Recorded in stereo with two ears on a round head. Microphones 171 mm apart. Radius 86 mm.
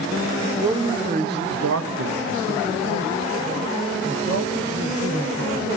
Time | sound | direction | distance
0.4 | a man speaking | 10° right (ahead or behind) | 0.6 m